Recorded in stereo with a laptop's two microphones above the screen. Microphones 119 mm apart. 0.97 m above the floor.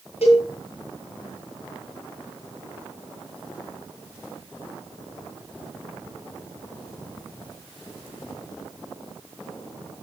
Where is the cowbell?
70° left (ahead or behind), 10 m.